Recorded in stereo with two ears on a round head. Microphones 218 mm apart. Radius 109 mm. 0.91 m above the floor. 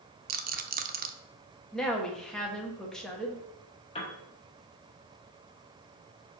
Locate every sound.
0.3 s a rattle: 35° right (ahead or behind), 0.6 m
1.7 s a woman speaking: 5° left (ahead or behind), 1.0 m
4.0 s a piano: 20° left (ahead or behind), 1.1 m